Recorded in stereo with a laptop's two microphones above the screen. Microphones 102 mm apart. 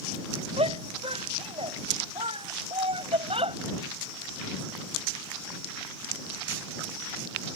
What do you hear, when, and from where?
0.6 s a shout: 75° right (ahead or behind); by 3.6 s 70° right (ahead or behind)